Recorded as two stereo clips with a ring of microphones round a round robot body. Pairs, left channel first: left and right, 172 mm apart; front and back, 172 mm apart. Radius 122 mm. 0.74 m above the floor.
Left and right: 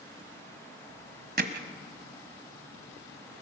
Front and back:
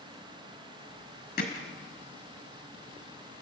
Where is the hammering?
60° right, 1.7 m.